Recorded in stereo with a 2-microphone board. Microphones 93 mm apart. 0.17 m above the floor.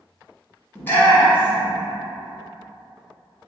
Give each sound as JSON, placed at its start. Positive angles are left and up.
{"t": 0.8, "sound": "a shout", "side_deg": 20, "distance_m": 1.0}